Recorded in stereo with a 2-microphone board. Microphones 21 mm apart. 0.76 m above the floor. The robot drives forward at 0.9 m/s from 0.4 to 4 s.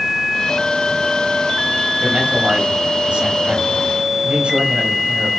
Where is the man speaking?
75° right (ahead or behind), 5 m.